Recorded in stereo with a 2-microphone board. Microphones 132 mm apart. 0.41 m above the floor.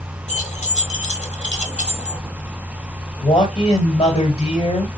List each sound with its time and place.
0.3 s keys jangling: 65° left (ahead or behind), 1.1 m
3.2 s a man speaking: 55° left (ahead or behind), 2 m